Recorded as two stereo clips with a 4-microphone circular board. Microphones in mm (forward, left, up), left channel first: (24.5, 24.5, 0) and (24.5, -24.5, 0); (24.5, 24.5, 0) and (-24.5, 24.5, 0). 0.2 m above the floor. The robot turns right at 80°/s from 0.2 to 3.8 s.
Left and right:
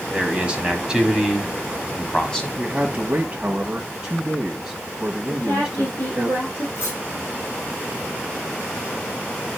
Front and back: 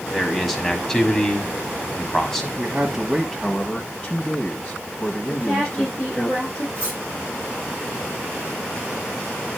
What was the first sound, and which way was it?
A man speaking, 105° right.